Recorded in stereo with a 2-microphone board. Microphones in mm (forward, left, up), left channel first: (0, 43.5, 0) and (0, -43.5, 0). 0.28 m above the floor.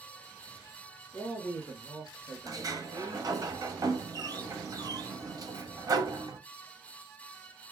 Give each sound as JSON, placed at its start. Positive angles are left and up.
{"t": 1.1, "sound": "a man speaking", "side_deg": 25, "distance_m": 4.0}
{"t": 2.5, "sound": "a sliding door", "side_deg": -40, "distance_m": 1.0}